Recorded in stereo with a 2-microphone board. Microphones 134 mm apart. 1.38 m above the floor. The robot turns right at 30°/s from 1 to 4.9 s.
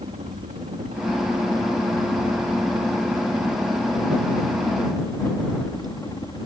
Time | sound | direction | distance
0.0 | a helicopter | 85° right | ?